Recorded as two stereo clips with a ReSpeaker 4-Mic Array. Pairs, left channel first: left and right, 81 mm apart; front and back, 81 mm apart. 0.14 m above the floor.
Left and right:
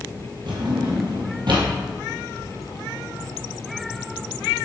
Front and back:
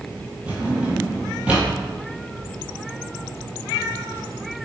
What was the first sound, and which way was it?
A drawer, 110° right.